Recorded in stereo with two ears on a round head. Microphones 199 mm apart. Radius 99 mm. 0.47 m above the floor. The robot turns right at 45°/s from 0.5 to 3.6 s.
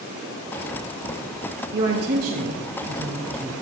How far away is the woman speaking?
About 3 m.